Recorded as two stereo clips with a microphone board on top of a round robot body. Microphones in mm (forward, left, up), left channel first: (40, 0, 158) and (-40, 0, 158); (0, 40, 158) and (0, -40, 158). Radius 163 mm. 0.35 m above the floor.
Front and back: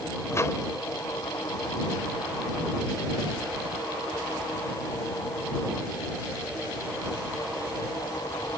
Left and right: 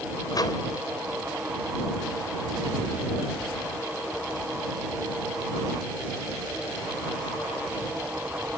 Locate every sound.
0.3 s a microwave: 55° left